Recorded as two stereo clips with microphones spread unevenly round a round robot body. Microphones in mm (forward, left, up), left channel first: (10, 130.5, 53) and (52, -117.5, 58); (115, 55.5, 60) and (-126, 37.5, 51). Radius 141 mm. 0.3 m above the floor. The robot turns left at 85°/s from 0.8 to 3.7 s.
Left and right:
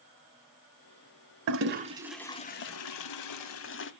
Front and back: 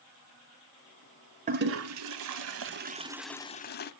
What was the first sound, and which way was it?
A toilet flushing, 115° right.